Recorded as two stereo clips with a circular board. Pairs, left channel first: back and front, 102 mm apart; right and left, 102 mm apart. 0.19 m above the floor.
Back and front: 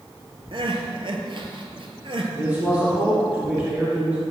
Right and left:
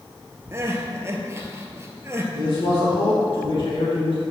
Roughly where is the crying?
Ahead left.